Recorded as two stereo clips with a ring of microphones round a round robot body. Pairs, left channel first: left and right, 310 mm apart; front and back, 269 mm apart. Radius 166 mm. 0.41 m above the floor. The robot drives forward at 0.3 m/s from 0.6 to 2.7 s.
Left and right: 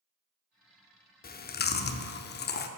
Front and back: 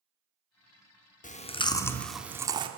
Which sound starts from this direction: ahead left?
Chewing, at 1.2 s.